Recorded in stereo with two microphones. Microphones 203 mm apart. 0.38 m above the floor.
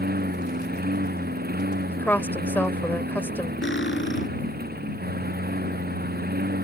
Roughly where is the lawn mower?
Right.